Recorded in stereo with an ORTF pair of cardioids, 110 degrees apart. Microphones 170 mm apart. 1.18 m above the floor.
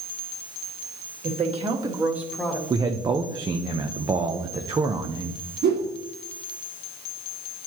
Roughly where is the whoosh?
Ahead right.